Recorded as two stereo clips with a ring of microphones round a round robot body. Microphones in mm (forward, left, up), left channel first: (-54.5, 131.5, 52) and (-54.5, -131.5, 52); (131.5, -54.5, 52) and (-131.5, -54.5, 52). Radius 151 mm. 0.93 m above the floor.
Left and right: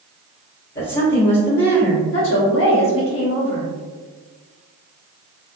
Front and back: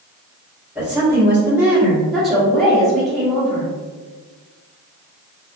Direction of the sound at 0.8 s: 100° left.